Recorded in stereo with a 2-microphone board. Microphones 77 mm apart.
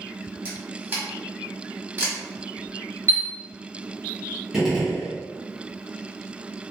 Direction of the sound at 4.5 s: Centre (ahead or behind).